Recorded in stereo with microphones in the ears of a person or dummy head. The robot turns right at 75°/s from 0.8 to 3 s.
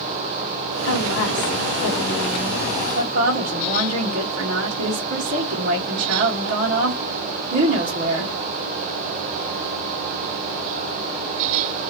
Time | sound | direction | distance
0.8 | a woman speaking | 75° left | 1.0 m